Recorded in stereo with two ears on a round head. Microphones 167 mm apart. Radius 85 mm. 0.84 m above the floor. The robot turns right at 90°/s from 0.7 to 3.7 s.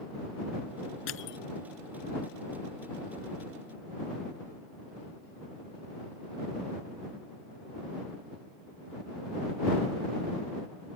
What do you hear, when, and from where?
1.1 s crushing: 85° left; by 1.4 s 60° left (ahead or behind)